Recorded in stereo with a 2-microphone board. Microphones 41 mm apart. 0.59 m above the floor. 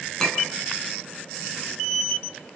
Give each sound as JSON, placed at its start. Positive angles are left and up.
{"t": 0.2, "sound": "a clink", "side_deg": 15, "distance_m": 5.0}